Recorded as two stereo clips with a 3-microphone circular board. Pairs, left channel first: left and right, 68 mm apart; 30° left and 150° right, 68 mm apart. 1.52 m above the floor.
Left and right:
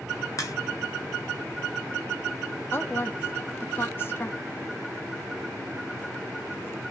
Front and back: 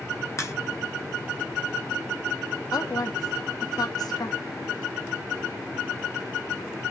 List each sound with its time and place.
0.4 s a crack: 70° left, 0.7 m
2.7 s a woman speaking: 35° left, 0.5 m